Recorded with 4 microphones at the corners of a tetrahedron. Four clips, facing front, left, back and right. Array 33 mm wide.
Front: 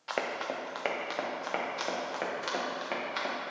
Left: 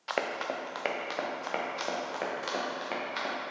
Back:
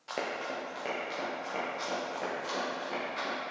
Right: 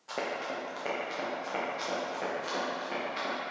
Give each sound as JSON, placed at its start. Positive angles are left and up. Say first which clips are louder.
{"t": 0.1, "sound": "running footsteps", "louder": "left 2 dB, front 2 dB", "azimuth_deg": 70, "distance_m": 1.0}